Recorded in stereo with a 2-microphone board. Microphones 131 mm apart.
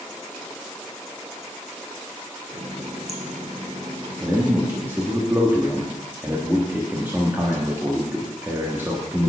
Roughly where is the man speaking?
Centre.